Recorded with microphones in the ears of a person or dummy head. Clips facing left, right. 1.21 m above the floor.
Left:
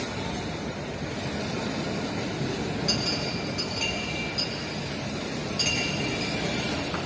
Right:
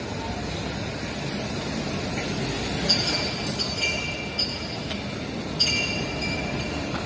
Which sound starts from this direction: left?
A clink, at 2.9 s.